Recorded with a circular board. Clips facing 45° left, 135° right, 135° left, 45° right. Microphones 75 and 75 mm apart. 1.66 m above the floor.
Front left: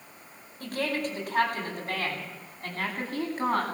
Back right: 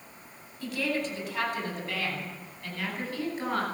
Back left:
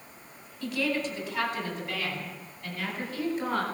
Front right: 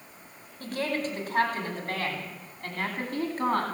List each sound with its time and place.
0.6 s a woman speaking: straight ahead, 9.5 m; by 3.6 s 5° right, 11 m